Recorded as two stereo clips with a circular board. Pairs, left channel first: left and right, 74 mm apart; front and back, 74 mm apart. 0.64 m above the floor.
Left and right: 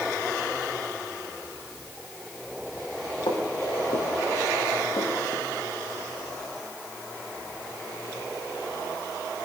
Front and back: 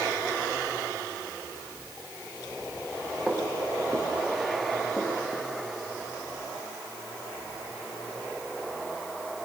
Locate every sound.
3.3 s footsteps: 85° left, 8.5 m; by 5.5 s 65° left, 7.5 m